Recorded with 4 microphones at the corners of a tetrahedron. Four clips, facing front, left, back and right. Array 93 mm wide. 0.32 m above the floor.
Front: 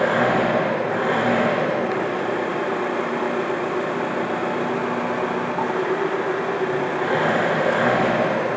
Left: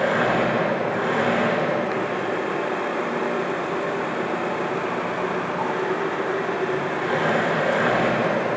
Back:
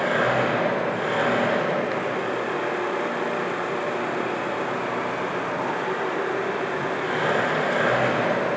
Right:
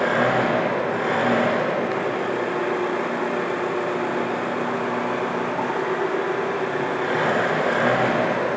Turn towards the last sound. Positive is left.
turn(degrees=-25)